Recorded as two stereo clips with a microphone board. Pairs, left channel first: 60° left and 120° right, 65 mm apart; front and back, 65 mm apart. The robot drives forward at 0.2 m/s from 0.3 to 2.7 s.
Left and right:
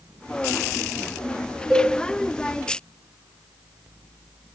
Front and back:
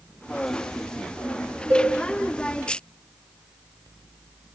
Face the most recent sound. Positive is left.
turn(degrees=155)